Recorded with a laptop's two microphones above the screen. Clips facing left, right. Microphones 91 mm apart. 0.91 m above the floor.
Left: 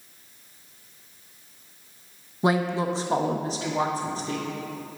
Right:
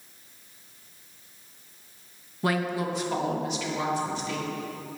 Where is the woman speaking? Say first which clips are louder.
Left 4 dB; 20° left (ahead or behind), 0.9 m; by 4.5 s 35° left (ahead or behind), 2.5 m.